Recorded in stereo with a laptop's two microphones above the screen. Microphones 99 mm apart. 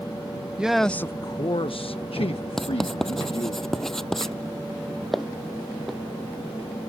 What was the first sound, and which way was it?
A man speaking, 10° right (ahead or behind).